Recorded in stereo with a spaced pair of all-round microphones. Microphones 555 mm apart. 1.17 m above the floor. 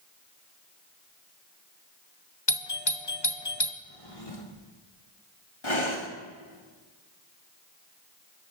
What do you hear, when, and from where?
2.5 s a doorbell: 45° left (ahead or behind), 0.9 m
3.8 s a drawer: 80° left, 2.0 m
5.6 s breathing: 60° left (ahead or behind), 1.9 m